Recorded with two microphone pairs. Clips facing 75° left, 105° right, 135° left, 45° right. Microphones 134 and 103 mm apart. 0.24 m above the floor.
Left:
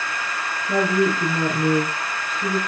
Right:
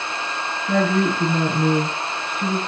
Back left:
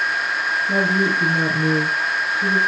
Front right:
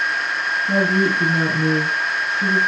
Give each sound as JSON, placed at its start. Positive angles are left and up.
{"t": 0.7, "sound": "a woman speaking", "azimuth_deg": -65, "distance_m": 3.5}